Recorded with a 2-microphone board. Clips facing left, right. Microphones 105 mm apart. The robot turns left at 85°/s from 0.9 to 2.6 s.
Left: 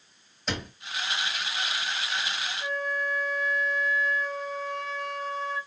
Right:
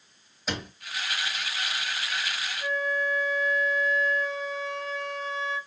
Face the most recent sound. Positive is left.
turn(degrees=0)  # may be behind; listen again after turning